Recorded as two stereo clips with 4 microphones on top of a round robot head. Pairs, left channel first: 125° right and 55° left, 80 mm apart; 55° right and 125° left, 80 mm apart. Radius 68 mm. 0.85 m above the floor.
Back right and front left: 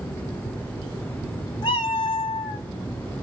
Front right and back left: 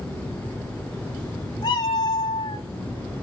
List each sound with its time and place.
1.6 s a cat meowing: 95° right, 1.9 m